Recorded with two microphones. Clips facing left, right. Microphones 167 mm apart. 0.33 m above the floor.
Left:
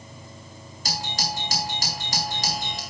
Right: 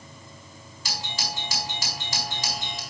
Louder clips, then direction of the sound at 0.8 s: Left 4 dB; 45° left (ahead or behind).